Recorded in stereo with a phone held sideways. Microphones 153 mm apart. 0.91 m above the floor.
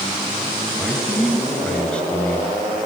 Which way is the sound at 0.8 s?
Centre (ahead or behind).